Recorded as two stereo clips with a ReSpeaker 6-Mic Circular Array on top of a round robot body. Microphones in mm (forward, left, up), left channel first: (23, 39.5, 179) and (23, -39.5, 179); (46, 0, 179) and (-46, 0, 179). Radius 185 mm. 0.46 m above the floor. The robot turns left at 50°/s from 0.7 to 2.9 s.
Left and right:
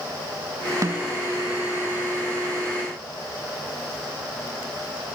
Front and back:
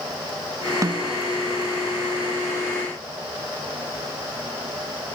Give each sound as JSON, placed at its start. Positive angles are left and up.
{"t": 0.8, "sound": "a snare drum", "azimuth_deg": -130}